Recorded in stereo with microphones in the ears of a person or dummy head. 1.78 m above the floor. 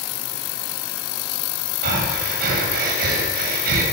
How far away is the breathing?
About 6.5 m.